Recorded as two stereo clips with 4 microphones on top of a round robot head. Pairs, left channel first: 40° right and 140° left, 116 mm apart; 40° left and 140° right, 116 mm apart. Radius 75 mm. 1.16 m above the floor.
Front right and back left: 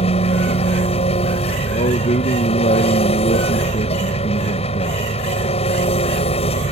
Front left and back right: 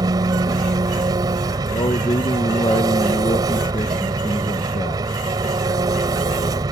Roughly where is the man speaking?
Ahead.